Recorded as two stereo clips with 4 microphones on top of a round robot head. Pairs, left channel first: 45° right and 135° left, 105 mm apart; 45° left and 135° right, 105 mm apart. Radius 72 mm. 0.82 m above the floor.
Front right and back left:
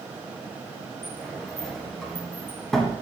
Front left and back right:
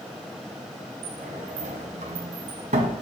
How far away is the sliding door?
About 1.5 m.